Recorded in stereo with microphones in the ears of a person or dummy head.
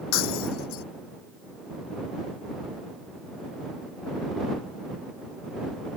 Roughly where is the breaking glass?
Left.